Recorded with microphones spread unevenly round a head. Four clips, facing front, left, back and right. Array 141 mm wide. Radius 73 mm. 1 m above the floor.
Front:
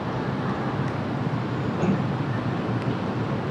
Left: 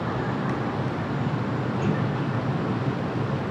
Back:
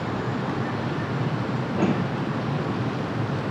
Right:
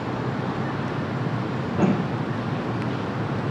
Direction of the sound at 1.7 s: 125° right.